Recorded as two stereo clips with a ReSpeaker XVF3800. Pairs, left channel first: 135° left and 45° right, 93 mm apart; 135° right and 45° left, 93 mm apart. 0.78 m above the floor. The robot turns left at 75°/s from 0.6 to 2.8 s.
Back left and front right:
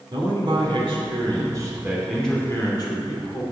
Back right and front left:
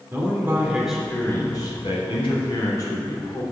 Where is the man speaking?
20° right, 3 m; by 3.4 s 175° left, 3 m.